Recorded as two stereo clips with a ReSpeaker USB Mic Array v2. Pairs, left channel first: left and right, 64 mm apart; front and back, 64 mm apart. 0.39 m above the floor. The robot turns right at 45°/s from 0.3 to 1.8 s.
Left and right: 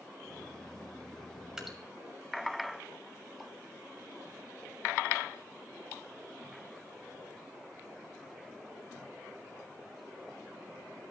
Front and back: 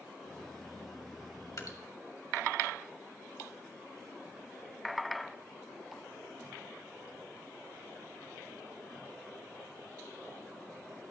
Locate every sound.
1.6 s dripping: 10° right, 1.9 m; by 1.8 s straight ahead, 1.9 m